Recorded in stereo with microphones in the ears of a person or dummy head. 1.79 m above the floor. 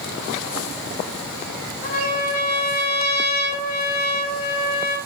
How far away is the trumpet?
About 4 m.